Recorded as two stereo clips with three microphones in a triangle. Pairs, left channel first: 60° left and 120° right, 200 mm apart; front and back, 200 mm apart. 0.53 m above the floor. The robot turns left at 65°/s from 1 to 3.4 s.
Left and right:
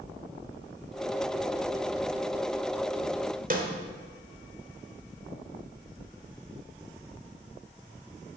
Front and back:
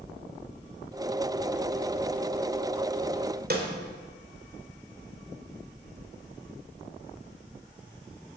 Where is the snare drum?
155° right, 1.8 m.